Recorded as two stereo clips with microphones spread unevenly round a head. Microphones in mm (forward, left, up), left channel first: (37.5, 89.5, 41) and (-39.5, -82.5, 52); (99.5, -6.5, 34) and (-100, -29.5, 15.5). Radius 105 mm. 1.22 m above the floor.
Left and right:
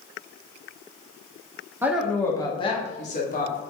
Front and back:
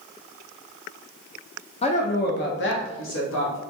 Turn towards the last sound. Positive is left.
turn(degrees=30)